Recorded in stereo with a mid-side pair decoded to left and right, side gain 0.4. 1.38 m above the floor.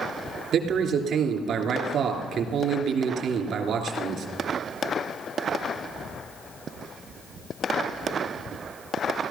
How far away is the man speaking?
About 3 m.